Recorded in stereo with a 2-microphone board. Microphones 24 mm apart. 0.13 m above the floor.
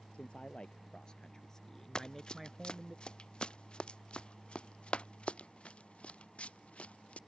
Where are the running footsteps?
35° left (ahead or behind); by 7.2 s 60° left (ahead or behind).